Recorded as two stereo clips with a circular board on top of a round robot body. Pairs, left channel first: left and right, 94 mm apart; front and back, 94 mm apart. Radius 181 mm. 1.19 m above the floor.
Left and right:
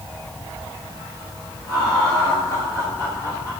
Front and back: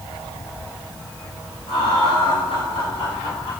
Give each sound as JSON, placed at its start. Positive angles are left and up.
{"t": 1.7, "sound": "laughter", "azimuth_deg": 35, "distance_m": 9.0}